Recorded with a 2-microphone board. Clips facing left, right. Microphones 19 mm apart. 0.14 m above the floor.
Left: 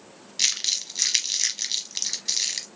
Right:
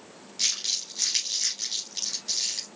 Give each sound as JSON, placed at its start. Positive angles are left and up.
{"t": 0.4, "sound": "crumpling", "side_deg": 30, "distance_m": 2.0}